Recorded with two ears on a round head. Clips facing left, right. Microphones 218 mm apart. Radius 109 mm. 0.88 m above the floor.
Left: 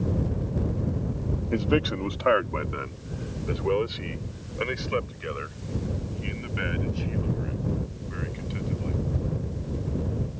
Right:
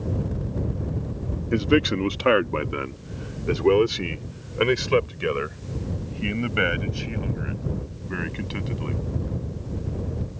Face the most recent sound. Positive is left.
turn(degrees=-70)  # may be behind; listen again after turning